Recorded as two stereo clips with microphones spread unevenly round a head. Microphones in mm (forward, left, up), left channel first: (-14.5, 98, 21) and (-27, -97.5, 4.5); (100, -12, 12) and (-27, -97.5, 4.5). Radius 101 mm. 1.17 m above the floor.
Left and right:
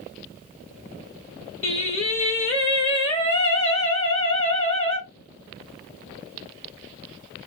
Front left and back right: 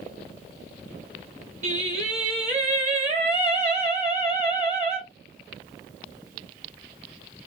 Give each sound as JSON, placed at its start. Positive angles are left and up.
{"t": 1.6, "sound": "singing", "azimuth_deg": 135, "distance_m": 1.4}